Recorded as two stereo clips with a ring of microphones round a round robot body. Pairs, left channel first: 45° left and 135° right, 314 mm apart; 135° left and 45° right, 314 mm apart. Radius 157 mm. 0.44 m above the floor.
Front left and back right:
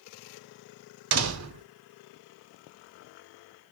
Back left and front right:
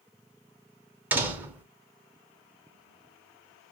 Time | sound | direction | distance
1.1 | a door slam | 130° right | 0.8 m